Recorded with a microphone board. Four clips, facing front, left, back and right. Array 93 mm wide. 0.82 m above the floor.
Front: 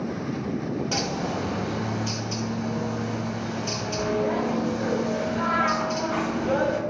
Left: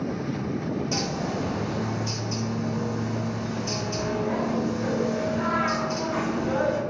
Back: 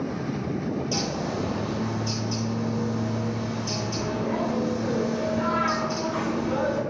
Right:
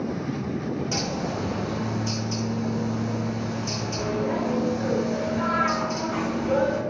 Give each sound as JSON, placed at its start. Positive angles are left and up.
{"t": 0.9, "sound": "a bird", "azimuth_deg": -5, "distance_m": 0.9}